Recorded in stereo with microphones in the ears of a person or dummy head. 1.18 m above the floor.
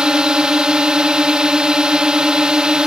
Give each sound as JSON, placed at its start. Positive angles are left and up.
{"t": 0.0, "sound": "a drone", "side_deg": 0}